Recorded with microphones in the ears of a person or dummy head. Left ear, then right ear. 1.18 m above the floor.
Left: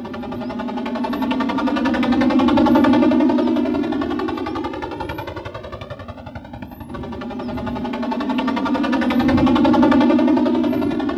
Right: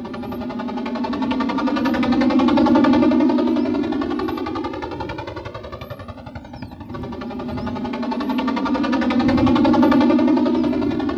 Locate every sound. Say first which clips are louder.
0.0 s a helicopter: left 1 dB; 10° left (ahead or behind)